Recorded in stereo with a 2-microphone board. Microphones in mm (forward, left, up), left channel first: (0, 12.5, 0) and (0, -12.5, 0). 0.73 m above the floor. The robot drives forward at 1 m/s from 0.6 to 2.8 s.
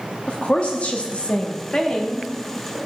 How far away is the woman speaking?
About 0.8 m.